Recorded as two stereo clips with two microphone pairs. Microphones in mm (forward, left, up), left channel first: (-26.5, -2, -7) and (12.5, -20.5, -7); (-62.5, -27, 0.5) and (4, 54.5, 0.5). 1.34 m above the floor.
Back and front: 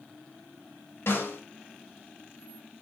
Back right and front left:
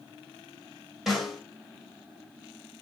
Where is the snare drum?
140° left, 3 m.